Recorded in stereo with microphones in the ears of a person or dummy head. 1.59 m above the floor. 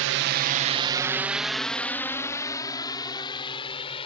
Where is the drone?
65° right (ahead or behind); by 4.1 s 30° left (ahead or behind).